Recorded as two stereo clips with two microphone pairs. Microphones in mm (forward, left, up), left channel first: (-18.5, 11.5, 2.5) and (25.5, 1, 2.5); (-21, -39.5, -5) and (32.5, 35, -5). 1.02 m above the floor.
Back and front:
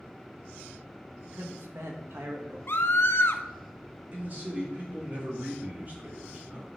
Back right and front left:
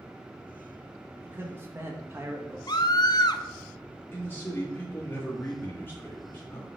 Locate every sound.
1.2 s a man speaking: 5° right, 1.1 m
2.7 s a scream: 165° right, 0.7 m
4.1 s a man speaking: 60° right, 1.7 m